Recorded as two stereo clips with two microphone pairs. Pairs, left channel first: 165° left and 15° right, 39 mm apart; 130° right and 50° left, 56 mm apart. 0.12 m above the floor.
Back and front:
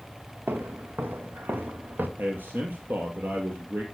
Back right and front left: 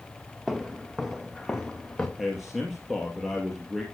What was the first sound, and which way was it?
Footsteps, 35° right.